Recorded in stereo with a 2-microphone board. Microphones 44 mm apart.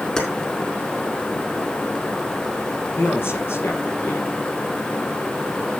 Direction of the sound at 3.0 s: 65° left (ahead or behind).